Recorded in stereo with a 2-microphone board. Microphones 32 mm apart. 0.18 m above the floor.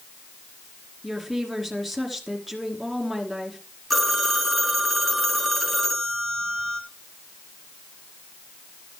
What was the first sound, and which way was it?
A woman speaking, 5° right (ahead or behind).